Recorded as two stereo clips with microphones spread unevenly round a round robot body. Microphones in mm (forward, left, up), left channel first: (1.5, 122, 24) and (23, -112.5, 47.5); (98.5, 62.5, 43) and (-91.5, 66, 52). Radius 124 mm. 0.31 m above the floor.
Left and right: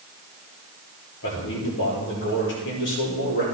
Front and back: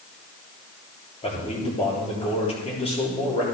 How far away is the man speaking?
About 8 m.